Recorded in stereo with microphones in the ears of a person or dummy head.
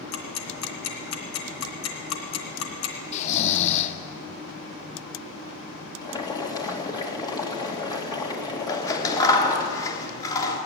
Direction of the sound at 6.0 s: 15° left (ahead or behind).